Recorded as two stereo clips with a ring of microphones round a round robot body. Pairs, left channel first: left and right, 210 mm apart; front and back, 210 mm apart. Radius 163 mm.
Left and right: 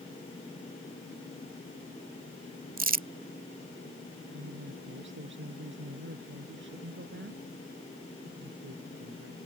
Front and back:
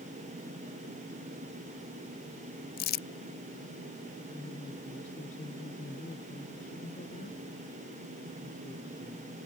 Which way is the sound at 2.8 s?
45° right.